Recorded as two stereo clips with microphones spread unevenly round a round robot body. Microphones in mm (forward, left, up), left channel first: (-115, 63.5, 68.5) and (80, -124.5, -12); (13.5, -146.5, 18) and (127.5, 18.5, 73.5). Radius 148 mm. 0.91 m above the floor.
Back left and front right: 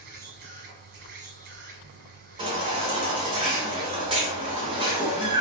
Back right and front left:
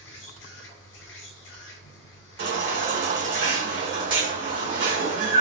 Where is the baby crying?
35° left, 1.3 m.